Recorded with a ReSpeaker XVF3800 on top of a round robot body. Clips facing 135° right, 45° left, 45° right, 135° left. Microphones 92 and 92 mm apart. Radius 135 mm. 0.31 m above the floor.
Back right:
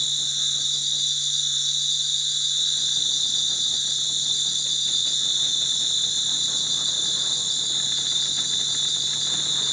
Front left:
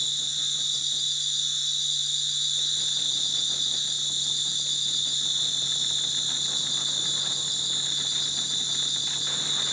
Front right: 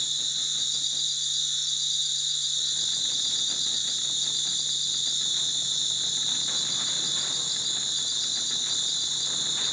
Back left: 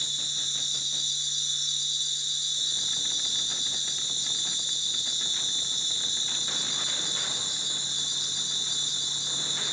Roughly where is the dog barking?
I don't hear a dog barking.